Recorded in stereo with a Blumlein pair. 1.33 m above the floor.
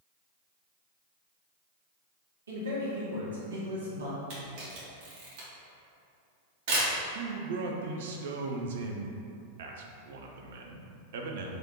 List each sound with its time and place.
2.5 s a man speaking: 65° right, 1.6 m
4.3 s a camera shutter: 45° right, 1.7 m
7.2 s a man speaking: 60° right, 0.7 m